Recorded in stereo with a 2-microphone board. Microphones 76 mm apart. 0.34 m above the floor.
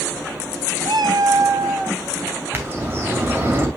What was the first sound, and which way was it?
A cat meowing, 80° right.